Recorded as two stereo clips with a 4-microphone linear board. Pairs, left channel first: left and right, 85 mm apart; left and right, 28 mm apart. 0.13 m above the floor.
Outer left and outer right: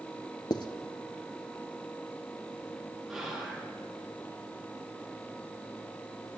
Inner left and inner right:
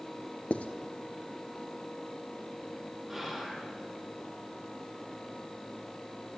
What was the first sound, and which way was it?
Writing, 60° left (ahead or behind).